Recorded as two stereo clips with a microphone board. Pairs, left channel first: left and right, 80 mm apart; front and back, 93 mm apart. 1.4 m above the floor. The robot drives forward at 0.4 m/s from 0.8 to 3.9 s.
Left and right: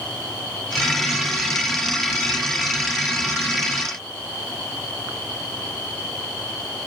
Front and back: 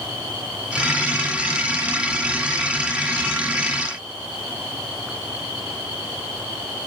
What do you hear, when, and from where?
Only background noise.